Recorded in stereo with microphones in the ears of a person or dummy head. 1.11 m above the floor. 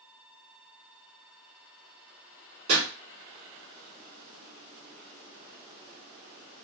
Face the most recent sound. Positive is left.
turn(degrees=-70)  # may be behind; listen again after turning